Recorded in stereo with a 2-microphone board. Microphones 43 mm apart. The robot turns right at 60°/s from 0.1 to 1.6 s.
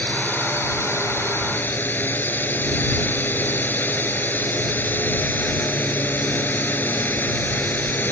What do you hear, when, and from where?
0.0 s a drone: 40° left; by 8.1 s 130° left